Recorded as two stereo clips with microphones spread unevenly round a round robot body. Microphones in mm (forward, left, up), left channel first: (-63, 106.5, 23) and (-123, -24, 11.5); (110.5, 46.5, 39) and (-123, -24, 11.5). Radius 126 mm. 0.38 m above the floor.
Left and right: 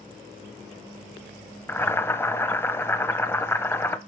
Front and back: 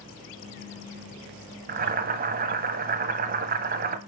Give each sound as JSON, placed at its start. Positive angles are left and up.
{"t": 1.7, "sound": "boiling", "azimuth_deg": 140, "distance_m": 0.7}